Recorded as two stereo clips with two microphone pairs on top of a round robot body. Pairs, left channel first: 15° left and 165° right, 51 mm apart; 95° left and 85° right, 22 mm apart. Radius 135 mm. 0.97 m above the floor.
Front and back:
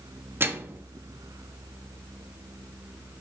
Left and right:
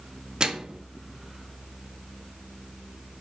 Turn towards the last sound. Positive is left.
turn(degrees=-150)